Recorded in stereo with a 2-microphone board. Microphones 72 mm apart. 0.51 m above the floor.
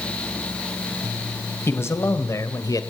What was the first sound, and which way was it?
A man speaking, 35° left (ahead or behind).